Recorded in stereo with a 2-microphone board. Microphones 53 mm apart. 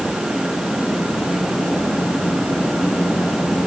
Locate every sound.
Only background noise.